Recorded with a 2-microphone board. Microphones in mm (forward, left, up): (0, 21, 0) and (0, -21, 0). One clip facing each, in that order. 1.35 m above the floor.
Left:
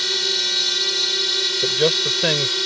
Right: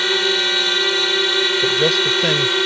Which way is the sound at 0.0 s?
40° right (ahead or behind).